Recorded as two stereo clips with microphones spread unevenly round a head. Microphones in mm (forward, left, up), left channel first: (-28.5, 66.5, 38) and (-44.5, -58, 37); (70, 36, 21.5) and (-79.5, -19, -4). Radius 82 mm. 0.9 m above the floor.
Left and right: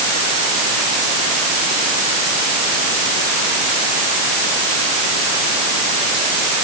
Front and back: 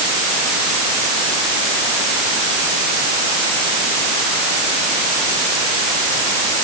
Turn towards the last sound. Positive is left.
No sound to turn to.